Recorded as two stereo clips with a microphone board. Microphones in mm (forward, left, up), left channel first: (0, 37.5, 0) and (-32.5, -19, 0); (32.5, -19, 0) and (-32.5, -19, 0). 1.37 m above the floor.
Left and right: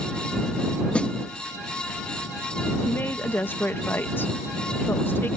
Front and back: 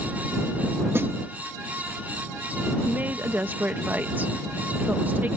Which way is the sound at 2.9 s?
120° left.